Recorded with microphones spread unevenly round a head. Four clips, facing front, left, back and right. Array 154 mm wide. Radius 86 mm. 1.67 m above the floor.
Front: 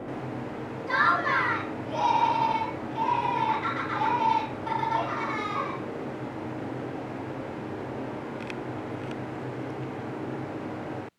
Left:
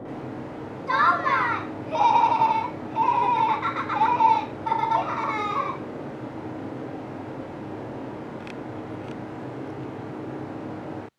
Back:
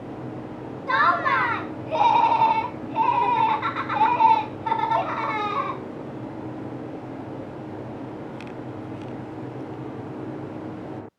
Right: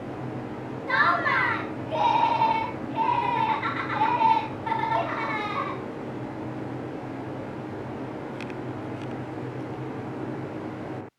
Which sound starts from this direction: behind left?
Laughter, at 0.9 s.